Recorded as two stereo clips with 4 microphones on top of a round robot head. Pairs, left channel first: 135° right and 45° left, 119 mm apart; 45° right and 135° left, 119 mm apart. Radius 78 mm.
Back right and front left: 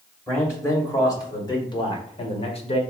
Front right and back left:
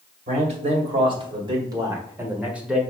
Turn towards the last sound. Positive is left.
turn(degrees=-140)